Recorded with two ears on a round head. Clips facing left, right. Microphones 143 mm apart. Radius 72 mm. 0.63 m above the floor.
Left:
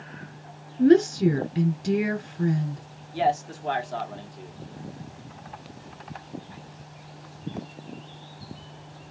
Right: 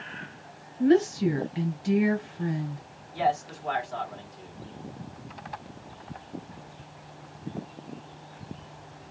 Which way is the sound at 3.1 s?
40° left (ahead or behind).